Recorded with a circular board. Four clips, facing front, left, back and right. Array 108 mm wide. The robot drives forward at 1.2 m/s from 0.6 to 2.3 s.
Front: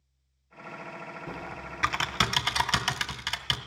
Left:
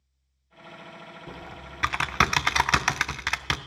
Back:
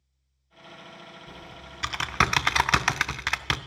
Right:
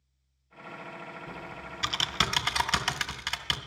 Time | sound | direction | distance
1.3 | typing on a keyboard | 20° left | 1.0 m